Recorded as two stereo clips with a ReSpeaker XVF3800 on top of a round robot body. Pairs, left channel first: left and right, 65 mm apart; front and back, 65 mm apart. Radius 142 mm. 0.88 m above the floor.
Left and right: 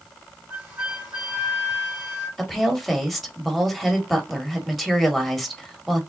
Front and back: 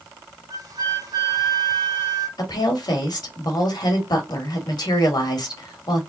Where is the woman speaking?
Straight ahead, 2 m.